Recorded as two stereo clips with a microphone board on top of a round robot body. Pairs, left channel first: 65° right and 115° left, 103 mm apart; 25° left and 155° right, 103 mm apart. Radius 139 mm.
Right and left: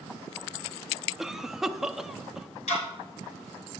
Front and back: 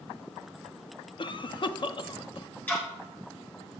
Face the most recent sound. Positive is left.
turn(degrees=-50)